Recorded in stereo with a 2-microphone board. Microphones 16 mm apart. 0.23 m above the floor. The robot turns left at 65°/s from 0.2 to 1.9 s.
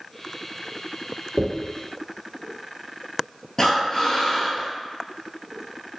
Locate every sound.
1.4 s a dropped coin: 80° right, 1.3 m; by 1.5 s 75° right (ahead or behind), 1.3 m
3.6 s breathing: 30° left (ahead or behind), 0.7 m